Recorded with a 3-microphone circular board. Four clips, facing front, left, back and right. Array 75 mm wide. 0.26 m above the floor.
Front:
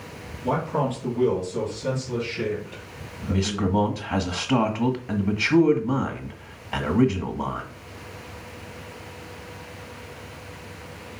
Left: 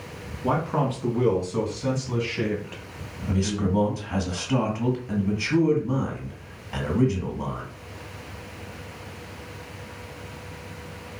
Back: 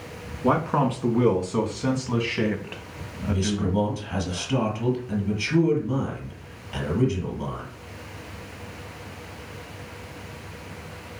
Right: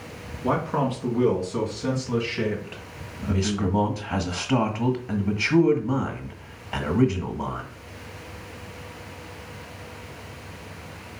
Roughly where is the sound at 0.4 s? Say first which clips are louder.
Even, back 3 dB; behind.